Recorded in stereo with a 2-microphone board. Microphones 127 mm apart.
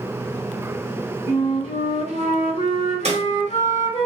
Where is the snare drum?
60° right (ahead or behind), 1.4 m.